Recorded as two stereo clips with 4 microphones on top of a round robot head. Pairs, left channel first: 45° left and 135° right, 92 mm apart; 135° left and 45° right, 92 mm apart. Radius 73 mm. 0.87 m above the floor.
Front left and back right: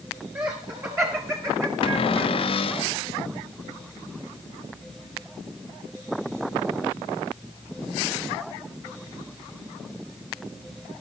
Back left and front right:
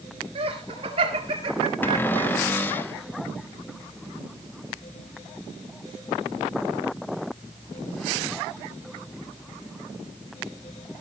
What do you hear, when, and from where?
0.3 s laughter: 75° right, 4.5 m; by 2.3 s 85° right, 1.9 m
1.8 s a cupboard door: 65° left, 0.9 m